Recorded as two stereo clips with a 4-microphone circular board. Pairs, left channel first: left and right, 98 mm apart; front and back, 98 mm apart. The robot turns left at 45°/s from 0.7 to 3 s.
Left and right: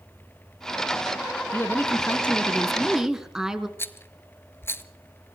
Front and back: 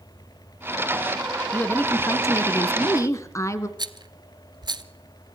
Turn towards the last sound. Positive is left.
turn(degrees=155)